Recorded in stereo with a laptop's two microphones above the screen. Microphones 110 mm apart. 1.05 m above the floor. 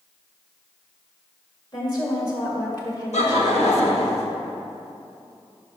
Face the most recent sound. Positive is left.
turn(degrees=80)